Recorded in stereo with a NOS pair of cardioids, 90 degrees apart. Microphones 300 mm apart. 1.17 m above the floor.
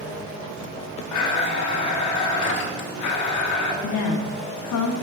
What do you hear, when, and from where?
1.1 s a blender: 65° left, 1.1 m
3.8 s a woman speaking: 55° left, 0.9 m